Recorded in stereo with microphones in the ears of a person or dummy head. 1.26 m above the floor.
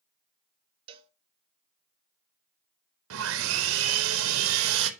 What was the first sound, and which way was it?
A cowbell, 30° right (ahead or behind).